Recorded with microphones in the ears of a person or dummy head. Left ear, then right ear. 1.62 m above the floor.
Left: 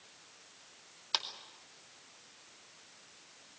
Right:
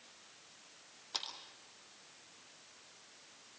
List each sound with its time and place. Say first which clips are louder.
1.1 s a clap: left 7 dB; 65° left (ahead or behind), 2.5 m